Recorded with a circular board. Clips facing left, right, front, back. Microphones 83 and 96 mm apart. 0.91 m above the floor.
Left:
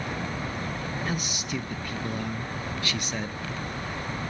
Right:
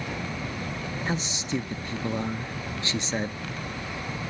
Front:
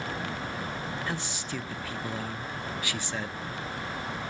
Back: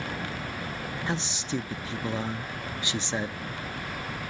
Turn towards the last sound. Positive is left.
turn(degrees=-130)